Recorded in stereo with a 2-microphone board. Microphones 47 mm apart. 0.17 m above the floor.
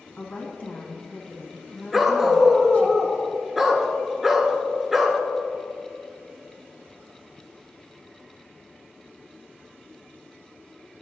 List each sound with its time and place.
0.2 s a woman speaking: 35° left (ahead or behind), 1.5 m
1.9 s a dog barking: 5° right (ahead or behind), 0.8 m